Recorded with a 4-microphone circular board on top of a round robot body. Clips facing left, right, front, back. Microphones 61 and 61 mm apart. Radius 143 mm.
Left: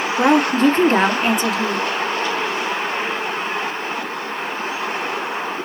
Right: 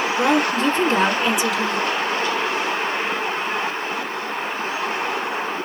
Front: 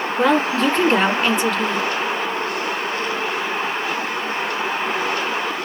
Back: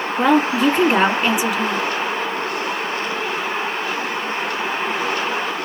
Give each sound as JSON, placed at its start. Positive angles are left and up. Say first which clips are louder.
{"t": 0.2, "sound": "a woman speaking", "louder": "left 5 dB, back 2 dB", "azimuth_deg": 105, "distance_m": 1.7}